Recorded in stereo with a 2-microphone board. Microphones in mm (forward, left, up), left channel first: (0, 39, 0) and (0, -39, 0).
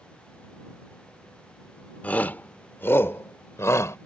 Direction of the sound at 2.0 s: 20° left (ahead or behind).